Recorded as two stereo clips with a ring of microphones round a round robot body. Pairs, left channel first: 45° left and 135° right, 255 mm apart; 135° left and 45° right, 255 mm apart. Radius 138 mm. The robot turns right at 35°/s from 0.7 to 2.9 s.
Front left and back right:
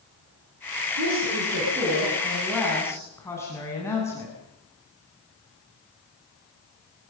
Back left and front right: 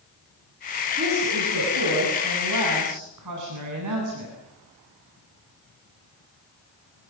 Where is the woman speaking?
105° right, 8.5 m; by 4.3 s 35° right, 8.5 m.